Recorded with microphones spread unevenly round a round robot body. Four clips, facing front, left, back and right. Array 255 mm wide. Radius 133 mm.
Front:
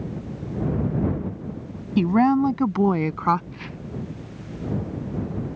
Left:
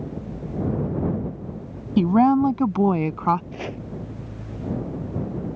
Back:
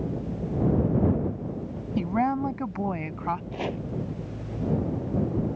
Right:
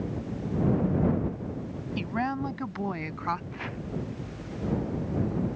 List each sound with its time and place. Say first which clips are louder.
2.0 s a woman speaking: left 14 dB, front 7 dB; 55° left; by 3.4 s 40° left
3.5 s chopping: left 5 dB, back 7 dB; 145° left